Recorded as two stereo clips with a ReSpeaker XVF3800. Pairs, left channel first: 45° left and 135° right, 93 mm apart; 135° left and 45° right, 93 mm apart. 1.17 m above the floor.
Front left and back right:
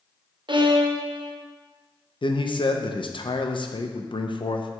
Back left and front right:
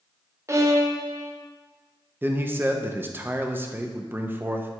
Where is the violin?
105° right, 0.7 m.